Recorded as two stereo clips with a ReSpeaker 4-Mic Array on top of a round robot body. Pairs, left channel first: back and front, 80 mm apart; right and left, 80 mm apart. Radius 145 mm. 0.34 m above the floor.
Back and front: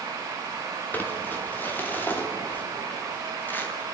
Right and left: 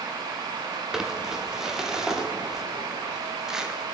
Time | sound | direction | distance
0.9 | crumpling | 160° left | 1.2 m